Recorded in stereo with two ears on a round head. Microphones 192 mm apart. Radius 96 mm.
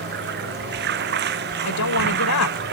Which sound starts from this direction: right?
Running water, at 0.0 s.